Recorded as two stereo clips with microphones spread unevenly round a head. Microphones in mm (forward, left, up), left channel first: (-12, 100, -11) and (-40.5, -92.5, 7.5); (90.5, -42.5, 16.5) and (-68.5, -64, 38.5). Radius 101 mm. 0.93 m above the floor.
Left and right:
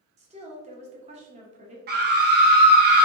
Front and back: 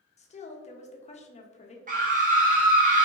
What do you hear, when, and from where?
0.2 s a woman speaking: 35° right, 1.0 m
1.9 s a scream: 135° right, 0.9 m